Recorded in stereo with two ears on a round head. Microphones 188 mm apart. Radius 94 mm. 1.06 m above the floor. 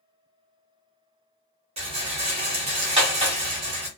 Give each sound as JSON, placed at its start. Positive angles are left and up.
{"t": 1.8, "sound": "a rattle", "side_deg": -30, "distance_m": 1.0}